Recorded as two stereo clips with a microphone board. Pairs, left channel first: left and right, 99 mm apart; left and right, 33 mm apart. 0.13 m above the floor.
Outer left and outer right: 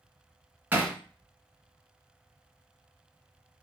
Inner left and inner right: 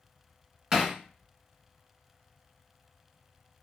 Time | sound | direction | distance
0.7 | hammering | 20° right (ahead or behind) | 1.4 m